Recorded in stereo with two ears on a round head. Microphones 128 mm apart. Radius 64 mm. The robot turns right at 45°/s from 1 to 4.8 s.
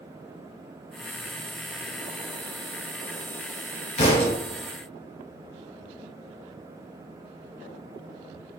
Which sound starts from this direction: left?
A thud, at 4.0 s.